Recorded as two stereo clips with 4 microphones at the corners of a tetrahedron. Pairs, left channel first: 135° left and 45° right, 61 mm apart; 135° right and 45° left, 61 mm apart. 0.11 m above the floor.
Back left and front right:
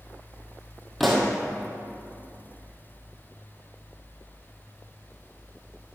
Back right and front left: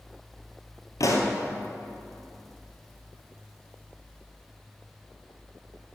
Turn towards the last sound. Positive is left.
turn(degrees=-135)